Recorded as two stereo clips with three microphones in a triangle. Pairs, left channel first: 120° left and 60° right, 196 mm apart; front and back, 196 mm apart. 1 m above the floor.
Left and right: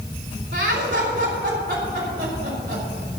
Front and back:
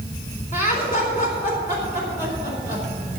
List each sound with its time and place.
0.5 s laughter: 45° right, 3.5 m